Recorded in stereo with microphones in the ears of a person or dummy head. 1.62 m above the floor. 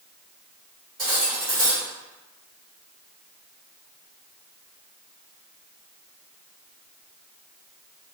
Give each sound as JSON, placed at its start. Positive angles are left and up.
{"t": 1.0, "sound": "cutlery clinking", "side_deg": 0, "distance_m": 1.3}